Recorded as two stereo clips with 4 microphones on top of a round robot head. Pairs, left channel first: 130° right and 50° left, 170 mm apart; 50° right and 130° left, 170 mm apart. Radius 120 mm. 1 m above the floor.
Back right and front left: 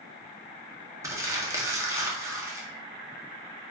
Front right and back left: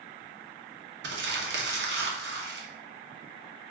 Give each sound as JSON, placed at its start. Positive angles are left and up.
{"t": 1.0, "sound": "crumpling", "azimuth_deg": 125, "distance_m": 1.9}